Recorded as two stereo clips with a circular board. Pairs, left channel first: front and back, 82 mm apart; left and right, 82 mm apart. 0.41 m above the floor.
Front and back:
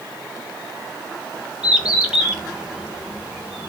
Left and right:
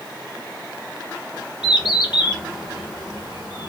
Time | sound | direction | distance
1.6 | a bird | 100° left | 0.8 m